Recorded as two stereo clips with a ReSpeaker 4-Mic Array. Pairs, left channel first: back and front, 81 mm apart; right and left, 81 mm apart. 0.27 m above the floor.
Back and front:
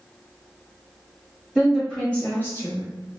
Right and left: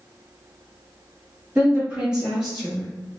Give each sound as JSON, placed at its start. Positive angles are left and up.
{"t": 1.6, "sound": "a woman speaking", "azimuth_deg": 75, "distance_m": 1.0}